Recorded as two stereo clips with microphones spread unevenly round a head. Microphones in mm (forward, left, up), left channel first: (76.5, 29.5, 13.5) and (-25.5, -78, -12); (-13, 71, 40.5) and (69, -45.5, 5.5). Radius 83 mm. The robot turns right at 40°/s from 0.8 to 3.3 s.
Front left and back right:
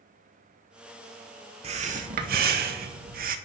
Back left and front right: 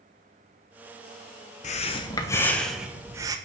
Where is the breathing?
175° left, 1.2 m; by 3.4 s 115° right, 1.2 m.